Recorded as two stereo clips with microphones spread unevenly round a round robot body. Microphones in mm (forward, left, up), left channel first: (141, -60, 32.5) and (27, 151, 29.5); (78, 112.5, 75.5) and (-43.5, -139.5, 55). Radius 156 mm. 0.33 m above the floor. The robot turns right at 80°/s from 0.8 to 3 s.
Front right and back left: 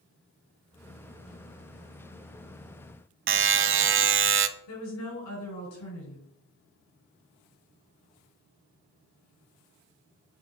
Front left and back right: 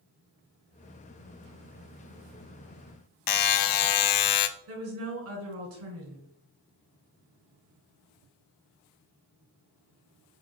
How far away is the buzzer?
About 0.8 m.